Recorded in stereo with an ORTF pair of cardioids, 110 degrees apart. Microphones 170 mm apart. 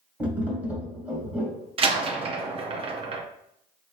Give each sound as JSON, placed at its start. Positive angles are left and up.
{"t": 0.2, "sound": "tapping", "azimuth_deg": -10, "distance_m": 1.4}
{"t": 1.8, "sound": "a door slam", "azimuth_deg": -35, "distance_m": 0.7}